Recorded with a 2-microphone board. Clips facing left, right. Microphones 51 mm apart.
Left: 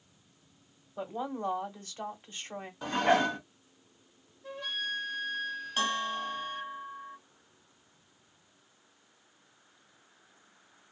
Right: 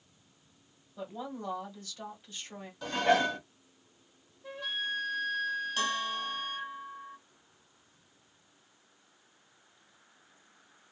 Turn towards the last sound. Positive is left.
turn(degrees=20)  # may be behind; listen again after turning